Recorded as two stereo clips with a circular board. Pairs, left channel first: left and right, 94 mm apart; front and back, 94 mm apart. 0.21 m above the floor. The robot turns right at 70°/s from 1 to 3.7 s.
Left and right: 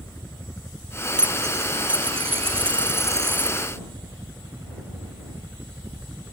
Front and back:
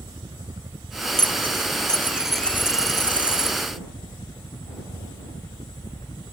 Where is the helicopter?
155° left; by 6.3 s 20° right.